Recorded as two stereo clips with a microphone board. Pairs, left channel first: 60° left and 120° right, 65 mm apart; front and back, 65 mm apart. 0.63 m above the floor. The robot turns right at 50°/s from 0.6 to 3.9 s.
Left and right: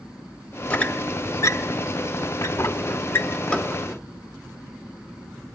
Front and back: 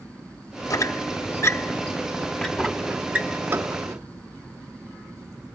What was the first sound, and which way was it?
A squeak, 10° right.